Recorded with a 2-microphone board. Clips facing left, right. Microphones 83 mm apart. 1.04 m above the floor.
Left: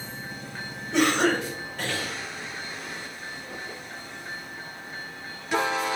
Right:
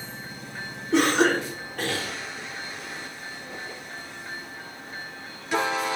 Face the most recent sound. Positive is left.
turn(degrees=-75)  # may be behind; listen again after turning